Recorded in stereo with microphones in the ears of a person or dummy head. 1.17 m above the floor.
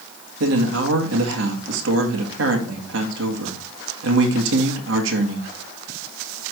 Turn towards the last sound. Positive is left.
turn(degrees=-75)  # may be behind; listen again after turning